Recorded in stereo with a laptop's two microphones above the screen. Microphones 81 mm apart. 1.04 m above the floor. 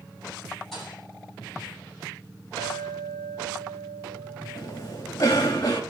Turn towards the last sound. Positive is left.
turn(degrees=45)  # may be behind; listen again after turning